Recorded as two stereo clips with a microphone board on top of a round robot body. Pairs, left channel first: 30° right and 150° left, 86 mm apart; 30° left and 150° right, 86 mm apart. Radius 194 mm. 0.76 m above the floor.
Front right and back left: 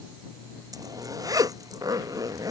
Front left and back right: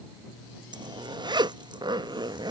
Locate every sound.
0.7 s a zipper: 170° right